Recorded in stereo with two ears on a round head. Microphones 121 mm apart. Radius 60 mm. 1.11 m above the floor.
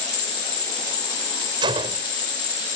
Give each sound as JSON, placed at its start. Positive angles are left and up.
{"t": 0.0, "sound": "an insect", "side_deg": 35}
{"t": 1.6, "sound": "a gunshot", "side_deg": -35}